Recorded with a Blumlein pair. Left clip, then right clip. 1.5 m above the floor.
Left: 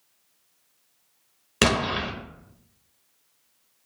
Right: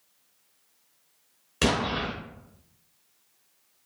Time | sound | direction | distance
1.6 | an explosion | 65° left | 0.7 m